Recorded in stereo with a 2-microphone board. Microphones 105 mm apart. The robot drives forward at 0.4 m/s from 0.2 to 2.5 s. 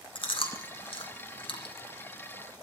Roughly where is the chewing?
Left.